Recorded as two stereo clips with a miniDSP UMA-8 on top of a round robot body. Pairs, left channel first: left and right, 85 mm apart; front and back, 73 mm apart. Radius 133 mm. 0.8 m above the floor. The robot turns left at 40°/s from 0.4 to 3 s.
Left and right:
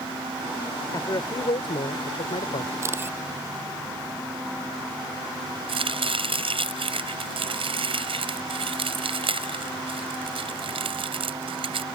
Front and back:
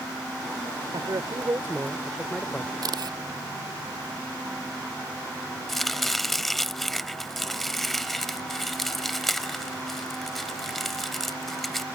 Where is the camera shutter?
150° right; by 3.2 s 155° right.